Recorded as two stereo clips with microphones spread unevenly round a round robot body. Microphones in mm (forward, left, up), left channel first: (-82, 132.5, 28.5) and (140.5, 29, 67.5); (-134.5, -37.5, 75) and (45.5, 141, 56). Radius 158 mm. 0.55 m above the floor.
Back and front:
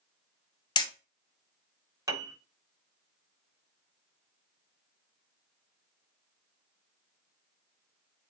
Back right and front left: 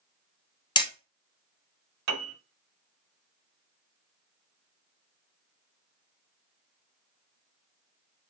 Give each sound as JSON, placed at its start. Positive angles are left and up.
{"t": 0.8, "sound": "hammering", "azimuth_deg": 165, "distance_m": 1.0}
{"t": 2.1, "sound": "a piano", "azimuth_deg": 55, "distance_m": 1.1}